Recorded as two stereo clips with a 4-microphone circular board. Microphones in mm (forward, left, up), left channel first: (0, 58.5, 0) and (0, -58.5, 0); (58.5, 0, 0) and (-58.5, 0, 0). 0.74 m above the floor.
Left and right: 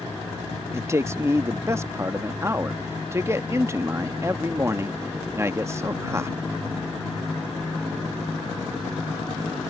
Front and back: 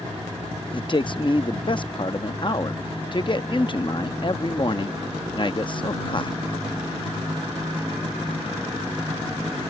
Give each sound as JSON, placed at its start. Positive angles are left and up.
{"t": 0.7, "sound": "a man speaking", "azimuth_deg": -30}